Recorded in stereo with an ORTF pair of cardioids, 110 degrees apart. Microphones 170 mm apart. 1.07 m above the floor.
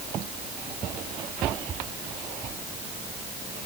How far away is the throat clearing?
I don't hear throat clearing.